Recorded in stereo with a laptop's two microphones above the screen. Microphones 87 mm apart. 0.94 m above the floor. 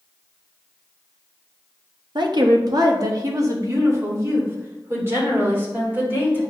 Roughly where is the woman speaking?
Right.